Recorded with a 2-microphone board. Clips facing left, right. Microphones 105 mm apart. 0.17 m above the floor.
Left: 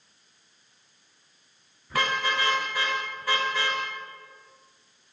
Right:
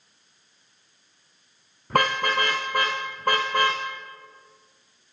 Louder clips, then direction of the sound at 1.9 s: Right 5 dB; 55° right (ahead or behind).